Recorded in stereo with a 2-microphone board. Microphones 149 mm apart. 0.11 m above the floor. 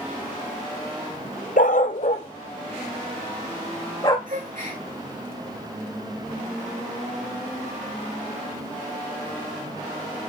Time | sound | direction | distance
1.6 | a dog barking | 70° left (ahead or behind) | 0.6 m
4.3 | a gasp | 65° right (ahead or behind) | 4 m